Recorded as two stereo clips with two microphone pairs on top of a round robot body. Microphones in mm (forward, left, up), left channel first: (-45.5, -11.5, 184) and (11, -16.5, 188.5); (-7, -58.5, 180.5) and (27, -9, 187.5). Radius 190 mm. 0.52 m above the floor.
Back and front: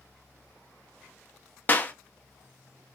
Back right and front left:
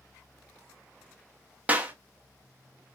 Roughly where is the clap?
Behind left.